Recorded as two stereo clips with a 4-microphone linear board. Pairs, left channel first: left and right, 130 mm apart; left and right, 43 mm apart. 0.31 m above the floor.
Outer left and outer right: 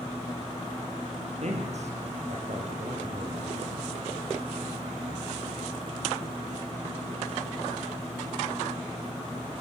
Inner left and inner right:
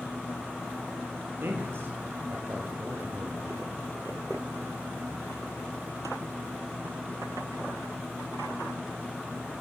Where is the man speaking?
60° right (ahead or behind), 8 m.